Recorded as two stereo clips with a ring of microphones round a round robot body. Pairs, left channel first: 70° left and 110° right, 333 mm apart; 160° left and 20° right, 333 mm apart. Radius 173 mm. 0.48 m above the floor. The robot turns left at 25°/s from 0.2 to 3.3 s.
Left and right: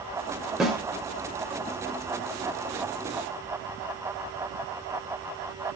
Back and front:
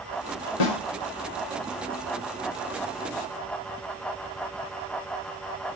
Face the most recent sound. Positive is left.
turn(degrees=90)